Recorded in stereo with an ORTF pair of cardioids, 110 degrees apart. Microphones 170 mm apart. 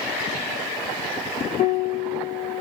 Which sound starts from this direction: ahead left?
A piano, at 1.6 s.